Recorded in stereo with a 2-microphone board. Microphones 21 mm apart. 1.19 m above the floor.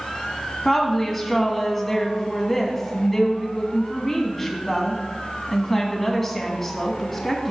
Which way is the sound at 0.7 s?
10° left (ahead or behind).